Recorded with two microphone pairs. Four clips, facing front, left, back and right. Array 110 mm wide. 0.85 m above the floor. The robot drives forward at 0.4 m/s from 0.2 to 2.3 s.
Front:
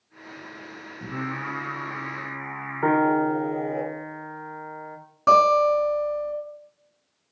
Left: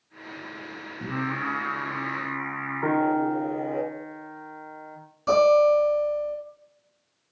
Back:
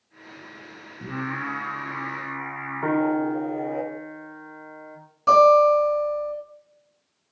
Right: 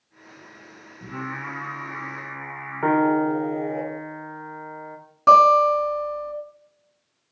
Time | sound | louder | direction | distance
1.0 | singing | left 3 dB, back 1 dB | 120° left | 1.9 m
2.8 | a piano | right 4 dB, front 2 dB | 65° right | 0.6 m
5.3 | a guitar | right 4 dB, back 3 dB | 60° right | 2.5 m